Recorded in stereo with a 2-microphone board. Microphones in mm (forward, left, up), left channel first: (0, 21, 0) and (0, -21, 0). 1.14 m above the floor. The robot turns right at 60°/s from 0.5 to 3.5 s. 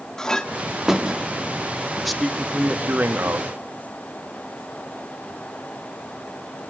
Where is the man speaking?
175° left, 2.5 m; by 3.5 s 95° right, 2.5 m.